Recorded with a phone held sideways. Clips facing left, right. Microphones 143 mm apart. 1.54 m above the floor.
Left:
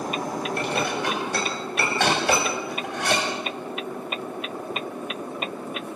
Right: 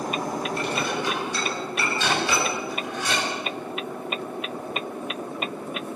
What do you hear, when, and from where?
0.6 s dishes clattering: 65° left (ahead or behind), 7 m